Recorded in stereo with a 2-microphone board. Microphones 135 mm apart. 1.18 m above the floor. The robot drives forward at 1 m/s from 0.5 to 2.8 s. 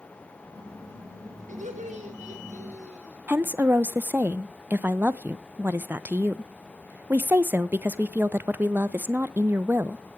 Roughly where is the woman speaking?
Centre.